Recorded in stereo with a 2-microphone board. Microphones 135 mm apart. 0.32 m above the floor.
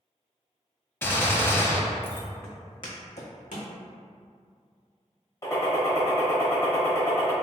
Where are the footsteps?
20° left (ahead or behind), 1.1 m; by 3.7 s 70° left (ahead or behind), 1.0 m.